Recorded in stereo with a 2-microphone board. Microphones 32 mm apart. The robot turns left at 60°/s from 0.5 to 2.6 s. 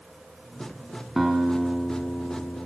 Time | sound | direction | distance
1.2 | a guitar | 165° right | 4.5 m